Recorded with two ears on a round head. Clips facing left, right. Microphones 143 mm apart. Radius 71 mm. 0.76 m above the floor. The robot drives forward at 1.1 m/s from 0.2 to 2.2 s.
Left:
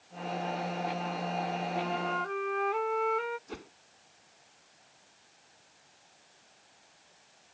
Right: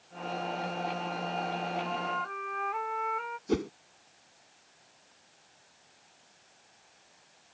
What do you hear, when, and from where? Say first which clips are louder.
1.8 s a flute: left 1 dB; 40° left (ahead or behind); by 3.4 s 45° left (ahead or behind)
3.5 s a whoosh: right 15 dB; 70° right (ahead or behind)